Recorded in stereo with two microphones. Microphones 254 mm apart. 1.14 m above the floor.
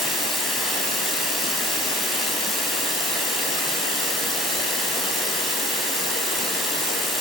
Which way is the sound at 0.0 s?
Centre (ahead or behind).